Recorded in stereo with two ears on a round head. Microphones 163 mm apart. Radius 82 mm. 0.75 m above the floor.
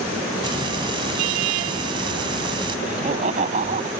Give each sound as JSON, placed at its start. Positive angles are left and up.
{"t": 0.4, "sound": "frying", "side_deg": -30}
{"t": 2.9, "sound": "laughter", "side_deg": -40}